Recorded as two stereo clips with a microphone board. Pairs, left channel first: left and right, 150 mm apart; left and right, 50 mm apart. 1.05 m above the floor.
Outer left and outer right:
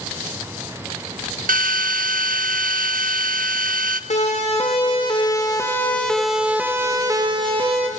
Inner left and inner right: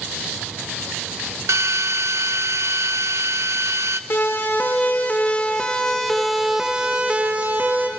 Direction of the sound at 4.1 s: 50° left (ahead or behind).